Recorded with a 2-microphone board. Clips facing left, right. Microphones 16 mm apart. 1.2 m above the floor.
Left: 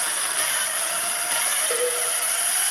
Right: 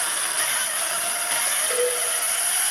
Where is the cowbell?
35° left (ahead or behind), 0.6 m.